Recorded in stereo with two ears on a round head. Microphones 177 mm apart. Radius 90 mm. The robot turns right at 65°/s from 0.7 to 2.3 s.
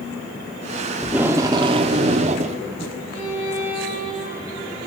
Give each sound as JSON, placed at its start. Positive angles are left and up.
{"t": 1.0, "sound": "tape being pulled", "azimuth_deg": -170, "distance_m": 0.7}
{"t": 3.1, "sound": "a violin", "side_deg": -45, "distance_m": 8.0}